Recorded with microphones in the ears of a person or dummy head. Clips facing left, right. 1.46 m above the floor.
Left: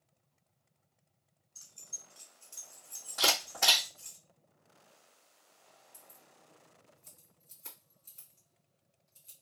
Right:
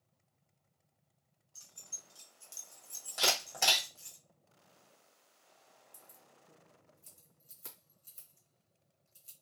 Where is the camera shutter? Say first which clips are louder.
Left 1 dB; 45° right (ahead or behind), 1.7 m.